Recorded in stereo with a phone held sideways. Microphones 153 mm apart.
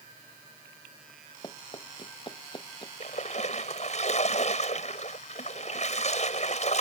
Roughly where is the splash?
Left.